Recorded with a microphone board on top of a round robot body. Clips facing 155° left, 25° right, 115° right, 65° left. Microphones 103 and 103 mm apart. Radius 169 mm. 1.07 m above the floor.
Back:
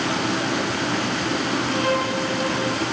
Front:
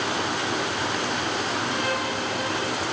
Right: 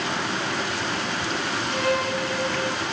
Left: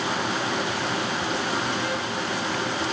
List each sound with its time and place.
0.0 s running water: 145° left, 3.5 m
1.7 s a violin: 145° right, 0.5 m